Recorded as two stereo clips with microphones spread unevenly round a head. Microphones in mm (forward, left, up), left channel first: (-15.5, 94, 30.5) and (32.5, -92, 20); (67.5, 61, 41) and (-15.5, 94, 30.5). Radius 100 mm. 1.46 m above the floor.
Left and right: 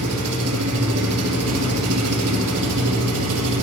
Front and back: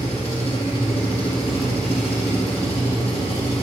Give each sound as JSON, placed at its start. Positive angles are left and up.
{"t": 0.0, "sound": "an engine running", "azimuth_deg": -75, "distance_m": 1.6}